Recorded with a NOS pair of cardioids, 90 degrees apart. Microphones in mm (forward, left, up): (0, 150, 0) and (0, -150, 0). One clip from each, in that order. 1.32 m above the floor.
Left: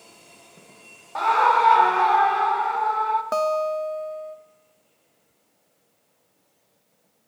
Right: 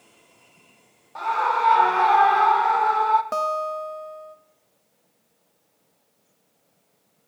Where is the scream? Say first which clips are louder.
Left 4 dB; 40° left, 1.2 m; by 3.2 s 40° right, 2 m.